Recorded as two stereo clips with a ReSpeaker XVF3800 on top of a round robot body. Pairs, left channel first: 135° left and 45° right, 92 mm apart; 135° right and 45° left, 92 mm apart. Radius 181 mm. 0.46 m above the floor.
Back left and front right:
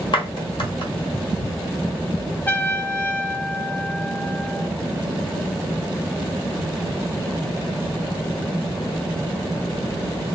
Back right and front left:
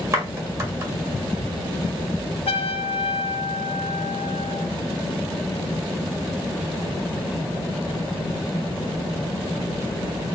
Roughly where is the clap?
Left.